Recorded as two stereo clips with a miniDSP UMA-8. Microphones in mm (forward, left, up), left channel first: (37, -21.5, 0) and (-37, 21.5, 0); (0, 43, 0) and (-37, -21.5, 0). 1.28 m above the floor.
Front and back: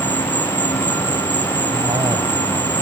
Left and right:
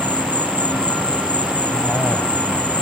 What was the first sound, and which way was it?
An insect, 55° right.